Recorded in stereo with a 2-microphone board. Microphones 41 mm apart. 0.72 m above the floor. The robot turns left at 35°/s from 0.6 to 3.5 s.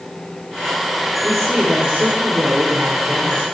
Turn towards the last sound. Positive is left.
turn(degrees=-80)